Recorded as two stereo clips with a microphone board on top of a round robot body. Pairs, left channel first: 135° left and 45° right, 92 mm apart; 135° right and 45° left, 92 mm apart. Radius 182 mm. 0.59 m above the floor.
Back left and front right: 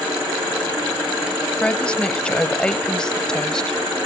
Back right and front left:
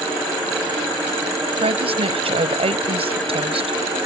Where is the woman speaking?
55° left; by 4.1 s 50° left.